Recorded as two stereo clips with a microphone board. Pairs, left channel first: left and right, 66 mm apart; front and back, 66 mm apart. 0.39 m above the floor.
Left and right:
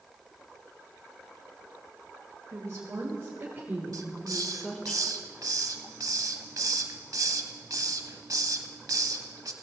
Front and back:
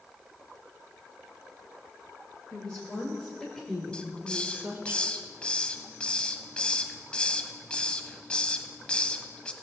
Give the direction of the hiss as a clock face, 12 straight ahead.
2 o'clock.